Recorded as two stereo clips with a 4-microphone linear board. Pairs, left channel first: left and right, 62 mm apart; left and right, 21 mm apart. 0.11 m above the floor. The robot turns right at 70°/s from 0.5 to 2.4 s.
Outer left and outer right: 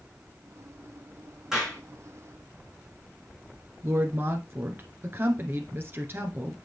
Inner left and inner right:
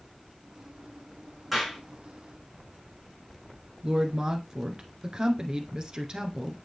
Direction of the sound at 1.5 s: 10° right (ahead or behind).